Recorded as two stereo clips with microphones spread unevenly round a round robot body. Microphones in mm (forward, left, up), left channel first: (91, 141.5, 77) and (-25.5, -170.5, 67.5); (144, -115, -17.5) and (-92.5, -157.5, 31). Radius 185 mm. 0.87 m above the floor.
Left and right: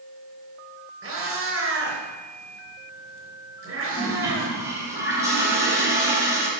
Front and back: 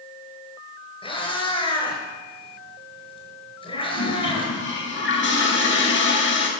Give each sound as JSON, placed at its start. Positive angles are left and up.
{"t": 1.0, "sound": "a cat meowing", "azimuth_deg": -60, "distance_m": 5.0}
{"t": 3.9, "sound": "a toilet flushing", "azimuth_deg": -30, "distance_m": 3.5}